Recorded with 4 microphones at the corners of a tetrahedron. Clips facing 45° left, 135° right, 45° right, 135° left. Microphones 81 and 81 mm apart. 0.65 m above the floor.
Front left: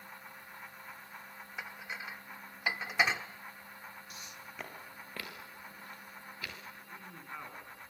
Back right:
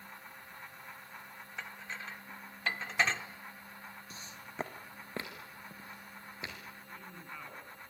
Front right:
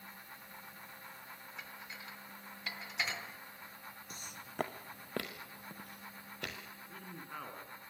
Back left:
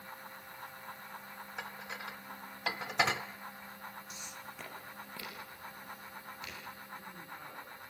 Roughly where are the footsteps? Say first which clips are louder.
Back right 1 dB, even; right.